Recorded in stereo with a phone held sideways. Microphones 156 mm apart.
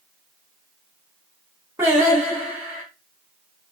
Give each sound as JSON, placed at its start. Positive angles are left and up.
{"t": 1.8, "sound": "singing", "side_deg": -20, "distance_m": 1.3}